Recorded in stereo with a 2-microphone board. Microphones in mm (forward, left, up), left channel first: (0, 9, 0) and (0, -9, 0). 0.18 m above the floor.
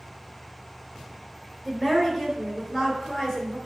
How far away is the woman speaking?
About 2.5 m.